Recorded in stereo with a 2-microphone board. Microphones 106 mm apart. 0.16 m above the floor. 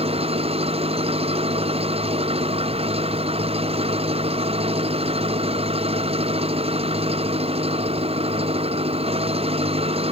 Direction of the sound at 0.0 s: 65° right (ahead or behind).